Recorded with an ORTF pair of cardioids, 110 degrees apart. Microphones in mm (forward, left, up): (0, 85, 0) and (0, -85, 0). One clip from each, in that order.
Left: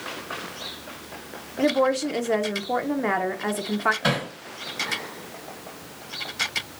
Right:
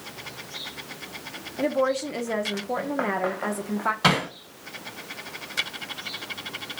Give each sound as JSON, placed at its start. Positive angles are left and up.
{"t": 1.6, "sound": "a woman speaking", "azimuth_deg": 15, "distance_m": 0.6}
{"t": 4.0, "sound": "hammering", "azimuth_deg": -65, "distance_m": 1.9}